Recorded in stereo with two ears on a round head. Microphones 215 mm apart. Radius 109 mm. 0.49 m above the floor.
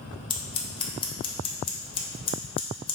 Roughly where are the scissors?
Left.